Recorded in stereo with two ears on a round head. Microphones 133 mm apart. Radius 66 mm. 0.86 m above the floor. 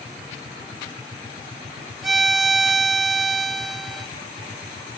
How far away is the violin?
About 1.0 m.